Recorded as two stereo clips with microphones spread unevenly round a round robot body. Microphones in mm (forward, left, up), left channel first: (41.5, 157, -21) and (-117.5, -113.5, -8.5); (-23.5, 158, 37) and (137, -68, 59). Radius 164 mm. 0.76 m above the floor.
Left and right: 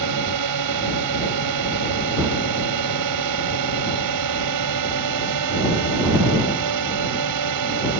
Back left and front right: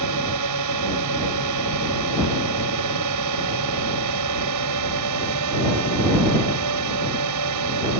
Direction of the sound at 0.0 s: 85° right.